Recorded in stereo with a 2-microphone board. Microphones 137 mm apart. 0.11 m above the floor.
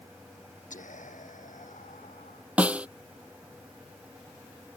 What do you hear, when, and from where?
0.7 s whispering: 70° left (ahead or behind)
2.6 s a snare drum: 10° right (ahead or behind)